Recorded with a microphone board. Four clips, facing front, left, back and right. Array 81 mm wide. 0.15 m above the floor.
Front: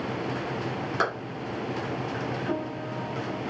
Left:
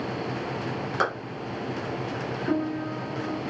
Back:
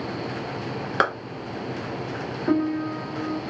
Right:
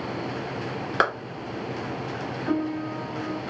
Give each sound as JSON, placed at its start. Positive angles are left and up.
{"t": 1.0, "sound": "a clap", "azimuth_deg": -140, "distance_m": 2.0}
{"t": 2.5, "sound": "a piano", "azimuth_deg": -170, "distance_m": 0.5}